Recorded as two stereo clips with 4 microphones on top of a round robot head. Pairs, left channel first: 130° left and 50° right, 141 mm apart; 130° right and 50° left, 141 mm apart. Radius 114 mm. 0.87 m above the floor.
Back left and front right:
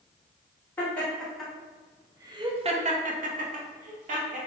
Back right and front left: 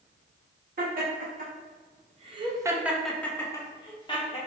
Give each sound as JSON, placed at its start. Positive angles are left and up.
{"t": 0.8, "sound": "laughter", "azimuth_deg": 50, "distance_m": 1.2}